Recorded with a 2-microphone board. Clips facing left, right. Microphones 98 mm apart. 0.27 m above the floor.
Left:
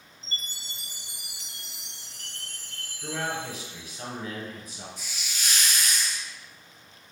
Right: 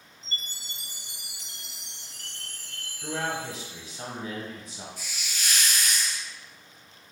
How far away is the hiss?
About 1.0 m.